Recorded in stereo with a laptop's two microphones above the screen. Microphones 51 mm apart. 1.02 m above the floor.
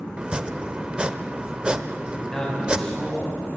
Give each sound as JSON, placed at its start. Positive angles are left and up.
{"t": 0.2, "sound": "chopping", "side_deg": -20, "distance_m": 0.9}
{"t": 2.1, "sound": "a man speaking", "side_deg": 15, "distance_m": 7.0}